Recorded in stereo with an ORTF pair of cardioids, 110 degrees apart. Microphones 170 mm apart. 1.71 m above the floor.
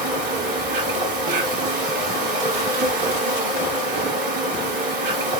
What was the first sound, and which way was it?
An insect, 50° right.